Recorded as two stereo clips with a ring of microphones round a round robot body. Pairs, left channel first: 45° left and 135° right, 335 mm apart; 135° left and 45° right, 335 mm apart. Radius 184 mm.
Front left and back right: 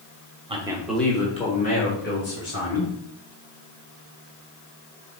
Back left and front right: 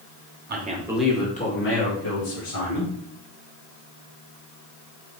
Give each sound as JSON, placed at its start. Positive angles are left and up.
{"t": 0.5, "sound": "a man speaking", "azimuth_deg": -75, "distance_m": 1.4}